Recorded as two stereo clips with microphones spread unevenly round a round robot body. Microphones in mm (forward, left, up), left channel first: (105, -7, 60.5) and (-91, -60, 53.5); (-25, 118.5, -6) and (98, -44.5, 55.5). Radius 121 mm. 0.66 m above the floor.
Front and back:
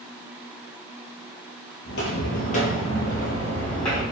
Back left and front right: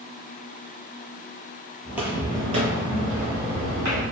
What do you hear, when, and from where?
1.9 s footsteps: 15° left, 0.9 m; by 4.0 s 70° right, 1.4 m